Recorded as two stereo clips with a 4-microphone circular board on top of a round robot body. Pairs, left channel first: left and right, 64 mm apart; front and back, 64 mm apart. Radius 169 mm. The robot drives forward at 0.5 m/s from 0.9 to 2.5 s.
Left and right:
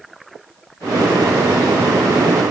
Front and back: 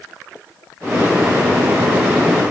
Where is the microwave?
No microwave in this recording.